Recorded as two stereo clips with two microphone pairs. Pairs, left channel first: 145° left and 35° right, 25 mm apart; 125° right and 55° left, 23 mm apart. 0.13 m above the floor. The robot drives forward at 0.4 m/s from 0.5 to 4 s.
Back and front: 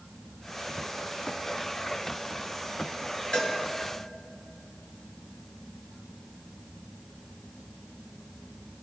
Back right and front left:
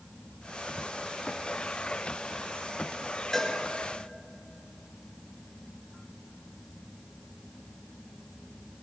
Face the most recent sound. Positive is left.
turn(degrees=170)